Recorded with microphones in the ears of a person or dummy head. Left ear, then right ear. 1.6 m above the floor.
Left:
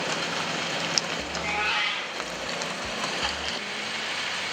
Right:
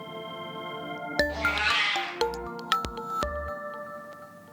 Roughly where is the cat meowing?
Right.